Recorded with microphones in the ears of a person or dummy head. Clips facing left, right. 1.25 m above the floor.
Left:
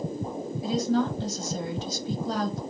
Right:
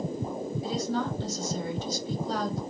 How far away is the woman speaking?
About 1.1 m.